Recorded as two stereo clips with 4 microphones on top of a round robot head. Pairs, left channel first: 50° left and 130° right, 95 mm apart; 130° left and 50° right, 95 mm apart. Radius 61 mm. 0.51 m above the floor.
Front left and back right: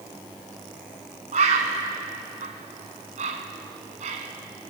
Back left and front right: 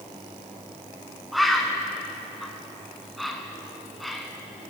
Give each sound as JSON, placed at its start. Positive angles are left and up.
{"t": 1.3, "sound": "a bird", "azimuth_deg": -140, "distance_m": 0.8}